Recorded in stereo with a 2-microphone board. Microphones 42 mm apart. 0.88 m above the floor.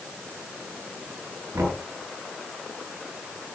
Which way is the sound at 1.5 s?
80° right.